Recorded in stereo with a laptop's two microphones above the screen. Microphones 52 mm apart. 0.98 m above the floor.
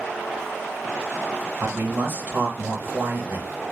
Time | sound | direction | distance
1.6 | a man speaking | 35° right (ahead or behind) | 1.0 m